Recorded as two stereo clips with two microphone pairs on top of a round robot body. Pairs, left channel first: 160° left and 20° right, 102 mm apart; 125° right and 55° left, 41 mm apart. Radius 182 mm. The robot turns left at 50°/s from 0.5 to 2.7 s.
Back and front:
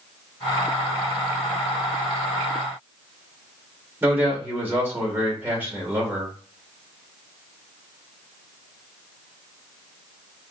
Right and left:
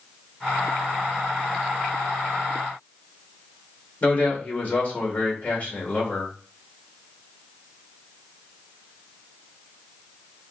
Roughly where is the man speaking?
Right.